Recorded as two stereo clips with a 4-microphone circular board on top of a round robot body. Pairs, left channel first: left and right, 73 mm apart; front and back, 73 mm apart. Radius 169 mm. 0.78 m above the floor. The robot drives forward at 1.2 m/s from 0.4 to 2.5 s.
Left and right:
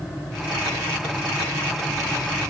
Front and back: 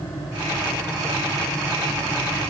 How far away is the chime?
No chime in this recording.